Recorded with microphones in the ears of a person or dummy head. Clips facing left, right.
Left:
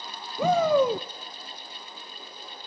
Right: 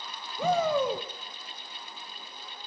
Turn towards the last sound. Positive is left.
turn(degrees=70)  # may be behind; listen again after turning